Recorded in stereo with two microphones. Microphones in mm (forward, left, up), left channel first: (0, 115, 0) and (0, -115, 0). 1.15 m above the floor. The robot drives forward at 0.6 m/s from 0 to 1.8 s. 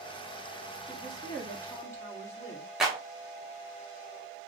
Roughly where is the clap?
Centre.